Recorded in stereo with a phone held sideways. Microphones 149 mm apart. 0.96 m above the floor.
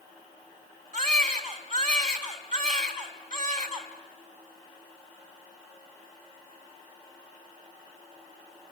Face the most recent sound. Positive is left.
turn(degrees=-55)  # may be behind; listen again after turning